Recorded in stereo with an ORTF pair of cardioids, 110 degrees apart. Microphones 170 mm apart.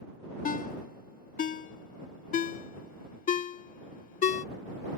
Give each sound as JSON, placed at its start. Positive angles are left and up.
{"t": 0.5, "sound": "a ringtone", "azimuth_deg": 50}